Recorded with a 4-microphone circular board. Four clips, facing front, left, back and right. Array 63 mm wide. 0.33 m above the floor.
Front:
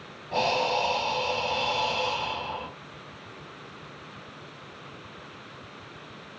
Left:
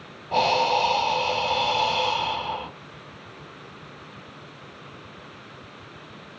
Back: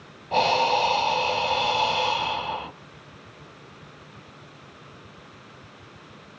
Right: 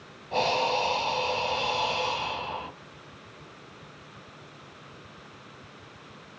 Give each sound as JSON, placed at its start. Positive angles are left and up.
{"t": 0.3, "sound": "breathing", "azimuth_deg": 140, "distance_m": 1.0}